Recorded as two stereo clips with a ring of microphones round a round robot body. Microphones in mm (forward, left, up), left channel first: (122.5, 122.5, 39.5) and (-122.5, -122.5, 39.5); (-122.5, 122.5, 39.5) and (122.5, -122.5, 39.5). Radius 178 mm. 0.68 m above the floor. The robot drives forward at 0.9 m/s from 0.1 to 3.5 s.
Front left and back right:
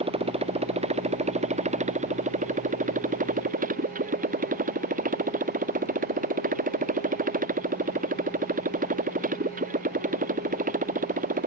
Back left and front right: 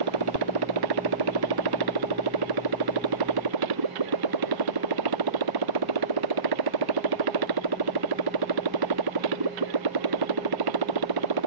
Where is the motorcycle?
60° right; by 11.5 s 70° right.